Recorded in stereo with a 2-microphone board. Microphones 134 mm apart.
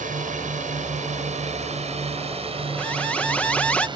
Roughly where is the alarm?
Centre.